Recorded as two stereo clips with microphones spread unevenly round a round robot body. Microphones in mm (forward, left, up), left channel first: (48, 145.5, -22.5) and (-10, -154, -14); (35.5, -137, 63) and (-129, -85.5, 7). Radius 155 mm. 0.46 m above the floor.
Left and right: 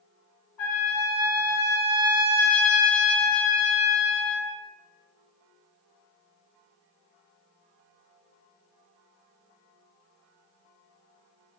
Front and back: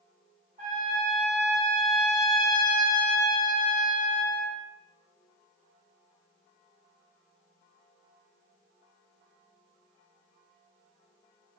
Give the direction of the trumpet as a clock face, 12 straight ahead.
8 o'clock.